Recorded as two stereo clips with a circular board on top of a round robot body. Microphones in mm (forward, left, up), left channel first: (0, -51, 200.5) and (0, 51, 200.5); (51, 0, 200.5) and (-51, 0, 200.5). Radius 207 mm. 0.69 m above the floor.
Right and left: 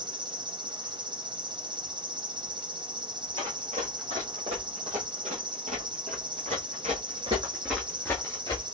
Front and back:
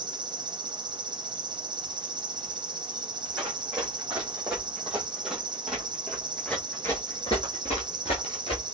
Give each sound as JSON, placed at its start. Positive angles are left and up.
{"t": 0.0, "sound": "an insect", "azimuth_deg": 135, "distance_m": 0.8}
{"t": 3.4, "sound": "running footsteps", "azimuth_deg": 100, "distance_m": 3.0}